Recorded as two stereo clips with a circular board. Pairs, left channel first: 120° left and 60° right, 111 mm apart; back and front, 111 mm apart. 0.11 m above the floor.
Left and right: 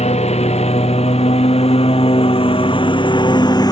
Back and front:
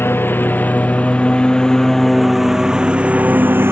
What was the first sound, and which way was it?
A lawn mower, 110° left.